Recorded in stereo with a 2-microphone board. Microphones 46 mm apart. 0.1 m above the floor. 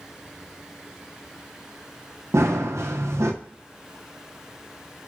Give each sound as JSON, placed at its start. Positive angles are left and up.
{"t": 2.3, "sound": "running footsteps", "side_deg": -90, "distance_m": 1.3}